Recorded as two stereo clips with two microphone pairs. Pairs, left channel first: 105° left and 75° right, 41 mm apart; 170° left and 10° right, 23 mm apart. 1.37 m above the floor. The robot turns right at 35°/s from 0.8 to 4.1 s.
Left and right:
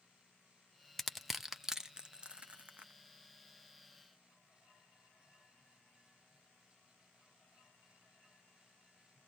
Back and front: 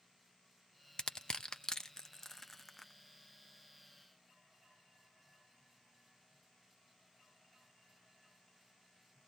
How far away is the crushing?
About 0.6 m.